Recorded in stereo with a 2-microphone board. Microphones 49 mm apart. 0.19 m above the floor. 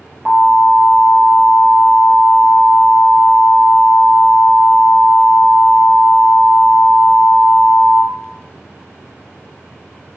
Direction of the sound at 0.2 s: 35° right (ahead or behind).